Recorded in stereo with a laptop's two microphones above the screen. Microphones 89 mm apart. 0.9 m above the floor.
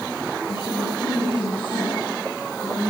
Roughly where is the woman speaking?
Left.